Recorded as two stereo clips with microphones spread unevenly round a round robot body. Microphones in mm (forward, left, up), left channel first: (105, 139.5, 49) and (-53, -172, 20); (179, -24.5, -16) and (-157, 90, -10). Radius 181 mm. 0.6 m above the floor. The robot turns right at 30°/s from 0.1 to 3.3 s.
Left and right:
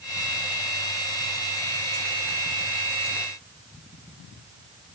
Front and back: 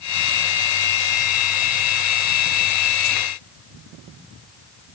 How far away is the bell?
No bell in this recording.